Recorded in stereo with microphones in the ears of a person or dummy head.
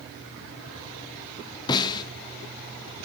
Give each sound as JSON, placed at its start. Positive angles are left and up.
{"t": 1.7, "sound": "a snare drum", "side_deg": 20, "distance_m": 0.6}